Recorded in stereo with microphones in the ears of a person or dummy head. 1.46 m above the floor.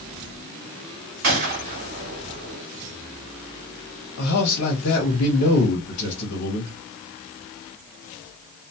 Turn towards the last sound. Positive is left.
turn(degrees=70)  # may be behind; listen again after turning